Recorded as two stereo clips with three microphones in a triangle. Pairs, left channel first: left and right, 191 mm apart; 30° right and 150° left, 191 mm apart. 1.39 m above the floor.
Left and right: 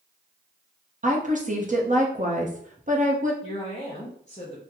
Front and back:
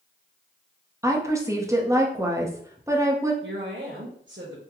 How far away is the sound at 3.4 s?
About 0.9 m.